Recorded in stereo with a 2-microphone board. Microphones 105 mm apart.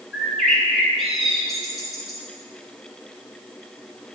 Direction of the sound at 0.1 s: Centre (ahead or behind).